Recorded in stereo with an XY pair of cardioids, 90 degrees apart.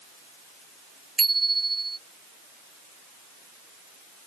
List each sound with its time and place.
1.2 s a bicycle bell: 30° right